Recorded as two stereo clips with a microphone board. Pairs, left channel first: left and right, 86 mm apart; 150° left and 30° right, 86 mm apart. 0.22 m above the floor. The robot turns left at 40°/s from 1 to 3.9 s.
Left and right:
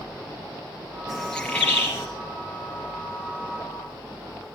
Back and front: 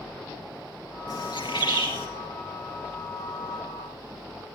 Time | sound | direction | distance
1.1 | a bird | straight behind | 4 m